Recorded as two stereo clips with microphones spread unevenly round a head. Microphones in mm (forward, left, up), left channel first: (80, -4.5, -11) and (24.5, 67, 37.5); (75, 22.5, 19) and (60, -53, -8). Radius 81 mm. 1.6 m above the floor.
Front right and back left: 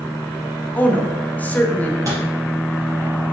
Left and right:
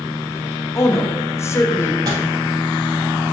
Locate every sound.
0.8 s a woman speaking: 20° left, 0.6 m
2.0 s a microwave: 175° right, 0.6 m